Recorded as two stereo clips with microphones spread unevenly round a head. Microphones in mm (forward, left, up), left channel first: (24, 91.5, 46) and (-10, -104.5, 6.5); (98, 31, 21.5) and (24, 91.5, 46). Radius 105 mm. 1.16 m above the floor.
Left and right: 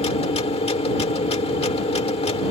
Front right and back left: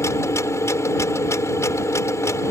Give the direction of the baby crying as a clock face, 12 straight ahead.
No baby crying in this recording.